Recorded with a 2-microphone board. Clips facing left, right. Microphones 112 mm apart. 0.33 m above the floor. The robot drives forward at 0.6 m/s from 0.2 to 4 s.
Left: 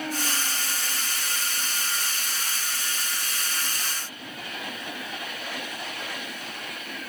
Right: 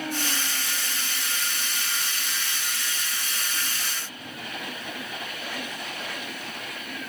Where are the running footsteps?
No running footsteps in this recording.